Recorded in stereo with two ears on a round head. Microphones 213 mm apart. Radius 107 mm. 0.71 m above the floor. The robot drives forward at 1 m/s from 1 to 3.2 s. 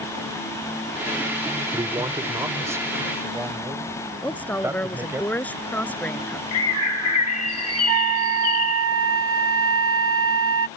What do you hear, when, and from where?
1.7 s a man speaking: 20° right (ahead or behind); by 5.2 s 10° right (ahead or behind)
4.2 s a woman speaking: 5° left (ahead or behind)
6.5 s a bird: 65° left (ahead or behind)
7.9 s a flute: 55° right (ahead or behind)